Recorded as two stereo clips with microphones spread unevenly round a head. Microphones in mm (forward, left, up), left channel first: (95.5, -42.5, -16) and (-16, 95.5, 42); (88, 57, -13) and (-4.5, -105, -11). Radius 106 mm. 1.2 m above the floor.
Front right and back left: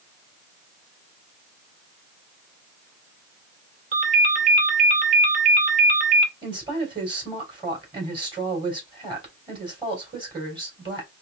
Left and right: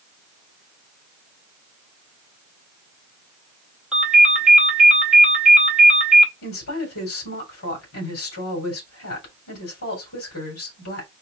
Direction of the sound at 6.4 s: 65° left.